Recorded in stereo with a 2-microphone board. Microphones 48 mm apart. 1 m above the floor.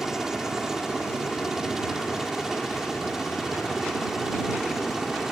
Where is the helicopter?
10° right (ahead or behind); by 5.3 s 5° right (ahead or behind).